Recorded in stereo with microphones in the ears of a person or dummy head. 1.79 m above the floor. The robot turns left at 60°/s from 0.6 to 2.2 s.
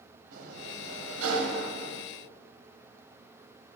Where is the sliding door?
50° right, 0.9 m; by 2.0 s 135° right, 0.9 m.